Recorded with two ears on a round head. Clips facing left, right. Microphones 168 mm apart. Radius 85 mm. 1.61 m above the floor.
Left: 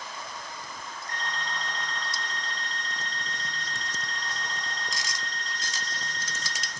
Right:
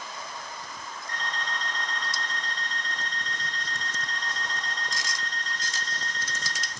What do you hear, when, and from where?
1.1 s an alarm clock: 35° left (ahead or behind), 2.0 m